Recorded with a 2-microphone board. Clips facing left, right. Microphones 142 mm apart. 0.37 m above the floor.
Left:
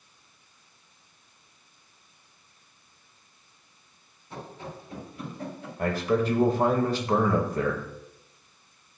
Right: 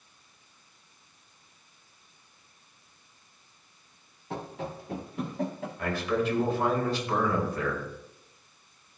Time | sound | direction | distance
4.3 | running footsteps | 75° right (ahead or behind) | 2.5 m
5.8 | a man speaking | 40° left (ahead or behind) | 1.6 m